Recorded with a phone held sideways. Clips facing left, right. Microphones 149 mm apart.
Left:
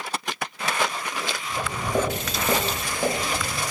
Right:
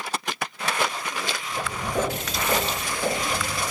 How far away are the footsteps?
About 1.8 m.